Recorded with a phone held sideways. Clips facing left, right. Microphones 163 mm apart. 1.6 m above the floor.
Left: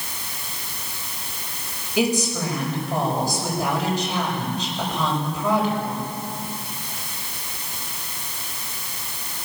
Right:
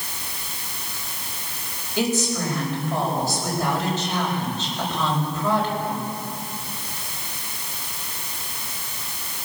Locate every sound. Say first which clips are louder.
2.0 s a woman speaking: left 1 dB; 15° left (ahead or behind), 9.5 m